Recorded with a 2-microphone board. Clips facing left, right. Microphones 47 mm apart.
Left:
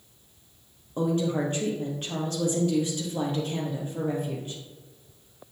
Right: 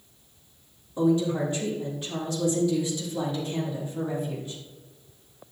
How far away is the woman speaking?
About 3 m.